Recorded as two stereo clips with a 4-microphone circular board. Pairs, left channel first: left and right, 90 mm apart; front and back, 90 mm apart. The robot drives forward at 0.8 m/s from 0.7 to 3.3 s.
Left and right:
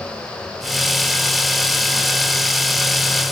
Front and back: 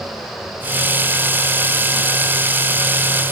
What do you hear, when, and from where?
Only background noise.